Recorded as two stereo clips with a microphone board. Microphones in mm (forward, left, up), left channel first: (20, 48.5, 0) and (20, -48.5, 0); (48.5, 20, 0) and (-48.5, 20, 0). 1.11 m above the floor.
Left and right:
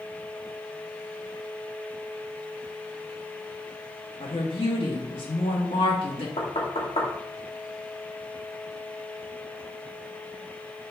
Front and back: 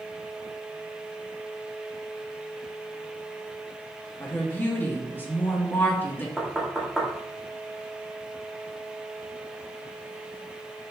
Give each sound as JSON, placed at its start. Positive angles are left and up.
{"t": 4.2, "sound": "a woman speaking", "azimuth_deg": 70, "distance_m": 2.0}
{"t": 6.4, "sound": "knocking", "azimuth_deg": 90, "distance_m": 2.0}